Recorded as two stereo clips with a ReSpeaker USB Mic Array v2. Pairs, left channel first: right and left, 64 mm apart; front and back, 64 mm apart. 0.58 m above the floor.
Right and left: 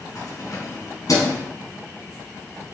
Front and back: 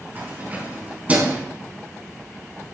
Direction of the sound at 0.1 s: 125° right.